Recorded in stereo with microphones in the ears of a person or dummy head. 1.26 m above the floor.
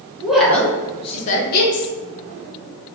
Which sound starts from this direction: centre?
A woman speaking, at 0.2 s.